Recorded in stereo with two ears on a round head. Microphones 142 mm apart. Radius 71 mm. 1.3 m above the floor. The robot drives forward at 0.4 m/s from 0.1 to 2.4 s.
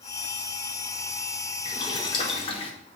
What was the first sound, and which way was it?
Boiling, 25° left (ahead or behind).